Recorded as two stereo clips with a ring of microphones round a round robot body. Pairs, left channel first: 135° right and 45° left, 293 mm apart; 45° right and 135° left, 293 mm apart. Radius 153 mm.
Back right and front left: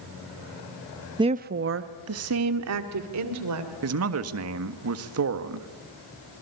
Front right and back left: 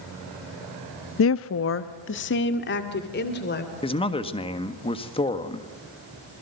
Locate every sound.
1.2 s a woman speaking: 25° right, 0.6 m; by 3.7 s 10° left, 3 m
3.8 s a man speaking: 25° left, 1.6 m